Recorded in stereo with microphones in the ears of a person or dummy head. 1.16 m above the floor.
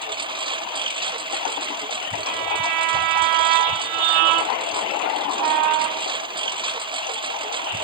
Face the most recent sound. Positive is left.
turn(degrees=-25)  # may be behind; listen again after turning